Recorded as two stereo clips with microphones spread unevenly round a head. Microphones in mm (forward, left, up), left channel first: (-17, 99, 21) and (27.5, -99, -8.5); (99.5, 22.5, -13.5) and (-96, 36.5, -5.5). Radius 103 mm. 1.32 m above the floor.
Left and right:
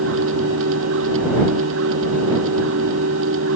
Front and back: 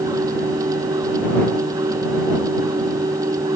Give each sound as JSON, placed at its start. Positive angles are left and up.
{"t": 0.0, "sound": "a machine running", "azimuth_deg": -110}